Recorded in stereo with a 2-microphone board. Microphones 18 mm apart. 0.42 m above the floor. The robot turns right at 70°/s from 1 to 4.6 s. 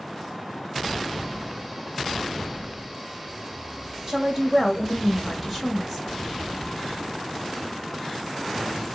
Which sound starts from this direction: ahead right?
A woman speaking, at 4.1 s.